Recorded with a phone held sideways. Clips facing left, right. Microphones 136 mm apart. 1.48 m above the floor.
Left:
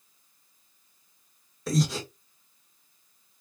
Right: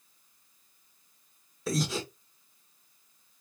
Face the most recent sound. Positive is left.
turn(degrees=0)  # may be behind; listen again after turning